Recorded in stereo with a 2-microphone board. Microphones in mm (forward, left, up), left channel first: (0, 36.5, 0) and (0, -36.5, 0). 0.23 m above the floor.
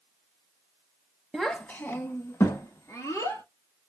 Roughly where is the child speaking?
Centre.